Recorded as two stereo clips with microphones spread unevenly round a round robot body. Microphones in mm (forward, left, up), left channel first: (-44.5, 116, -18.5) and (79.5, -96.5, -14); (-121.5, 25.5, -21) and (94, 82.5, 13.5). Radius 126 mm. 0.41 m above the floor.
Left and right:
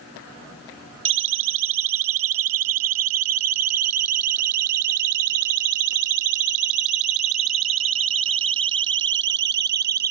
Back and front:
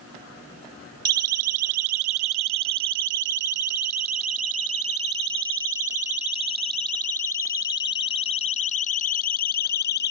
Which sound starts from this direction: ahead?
A siren, at 1.1 s.